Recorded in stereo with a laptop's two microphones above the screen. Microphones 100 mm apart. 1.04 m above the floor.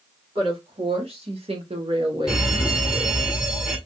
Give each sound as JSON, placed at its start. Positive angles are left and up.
{"t": 0.3, "sound": "a woman speaking", "side_deg": -60, "distance_m": 1.8}
{"t": 2.3, "sound": "an alarm", "side_deg": -5, "distance_m": 1.4}